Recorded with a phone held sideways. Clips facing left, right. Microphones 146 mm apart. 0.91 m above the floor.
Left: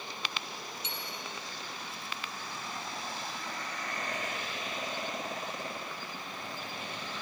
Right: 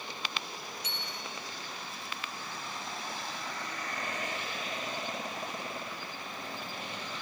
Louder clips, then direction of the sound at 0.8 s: Even; 25° left (ahead or behind).